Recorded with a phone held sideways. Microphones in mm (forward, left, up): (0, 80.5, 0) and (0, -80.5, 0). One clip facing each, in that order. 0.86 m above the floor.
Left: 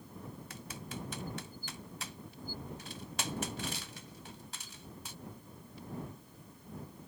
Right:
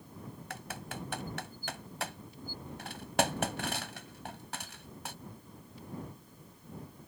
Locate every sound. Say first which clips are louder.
0.5 s typing on a keyboard: right 4 dB; 70° right (ahead or behind)